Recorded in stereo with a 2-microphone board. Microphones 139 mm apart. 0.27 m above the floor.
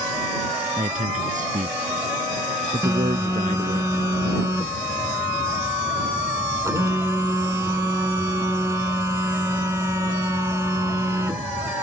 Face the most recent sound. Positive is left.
turn(degrees=-20)  # may be behind; listen again after turning